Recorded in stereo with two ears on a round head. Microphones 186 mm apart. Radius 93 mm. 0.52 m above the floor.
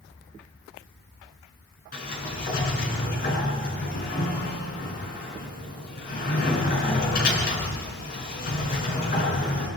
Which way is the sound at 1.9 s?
45° left (ahead or behind).